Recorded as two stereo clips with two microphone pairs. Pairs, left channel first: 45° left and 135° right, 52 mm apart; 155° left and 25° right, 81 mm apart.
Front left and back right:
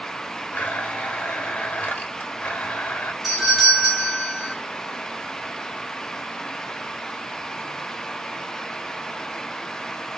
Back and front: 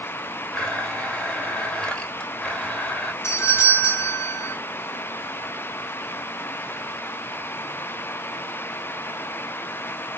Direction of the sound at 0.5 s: 85° left.